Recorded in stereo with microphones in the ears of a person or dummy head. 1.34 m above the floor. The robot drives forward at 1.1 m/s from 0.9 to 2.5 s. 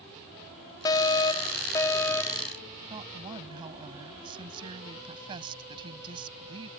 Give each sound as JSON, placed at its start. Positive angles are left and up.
{"t": 0.8, "sound": "a fire alarm", "side_deg": 20}
{"t": 2.9, "sound": "a woman speaking", "side_deg": -30}